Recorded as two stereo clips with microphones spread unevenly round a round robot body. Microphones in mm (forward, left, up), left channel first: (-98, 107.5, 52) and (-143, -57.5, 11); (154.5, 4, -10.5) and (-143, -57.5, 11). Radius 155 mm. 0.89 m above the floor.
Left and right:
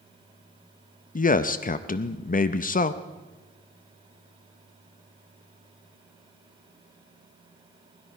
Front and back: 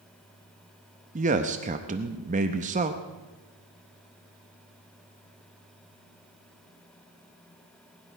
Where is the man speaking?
125° left, 0.7 m.